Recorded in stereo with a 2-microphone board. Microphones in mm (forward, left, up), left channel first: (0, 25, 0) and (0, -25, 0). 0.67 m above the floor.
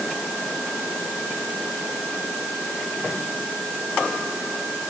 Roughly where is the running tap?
No running tap in this recording.